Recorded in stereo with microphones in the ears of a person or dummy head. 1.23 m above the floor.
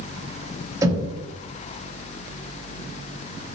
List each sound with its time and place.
0.8 s knocking: 20° right (ahead or behind), 3 m